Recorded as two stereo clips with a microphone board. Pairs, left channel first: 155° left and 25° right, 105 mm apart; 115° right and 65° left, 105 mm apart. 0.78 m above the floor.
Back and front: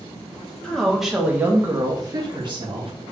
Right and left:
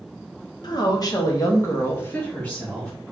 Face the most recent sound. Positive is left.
turn(degrees=-30)